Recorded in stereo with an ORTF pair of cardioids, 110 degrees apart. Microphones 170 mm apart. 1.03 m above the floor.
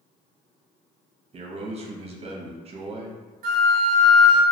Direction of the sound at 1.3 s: 35° right.